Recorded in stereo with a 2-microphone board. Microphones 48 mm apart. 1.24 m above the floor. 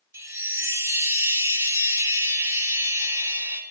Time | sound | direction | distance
0.1 | a chime | 70° right (ahead or behind) | 1.8 m